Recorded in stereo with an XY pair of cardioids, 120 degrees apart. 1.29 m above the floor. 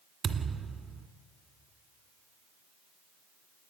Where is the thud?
45° right, 1.8 m.